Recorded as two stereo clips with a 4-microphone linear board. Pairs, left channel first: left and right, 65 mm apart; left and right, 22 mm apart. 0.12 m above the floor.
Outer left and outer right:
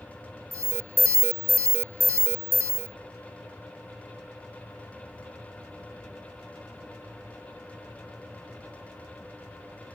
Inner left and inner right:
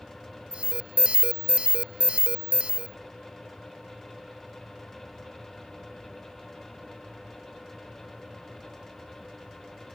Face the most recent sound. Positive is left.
turn(degrees=-50)  # may be behind; listen again after turning